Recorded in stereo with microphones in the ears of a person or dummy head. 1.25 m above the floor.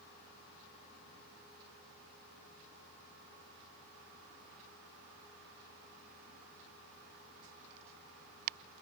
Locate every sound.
Only background noise.